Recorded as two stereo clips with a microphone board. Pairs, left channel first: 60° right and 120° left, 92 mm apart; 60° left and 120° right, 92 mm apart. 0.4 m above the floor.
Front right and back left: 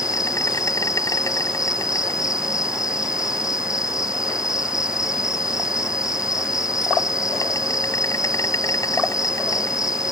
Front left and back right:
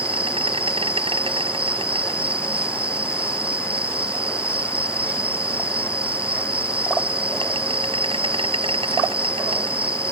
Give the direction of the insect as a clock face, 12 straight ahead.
4 o'clock.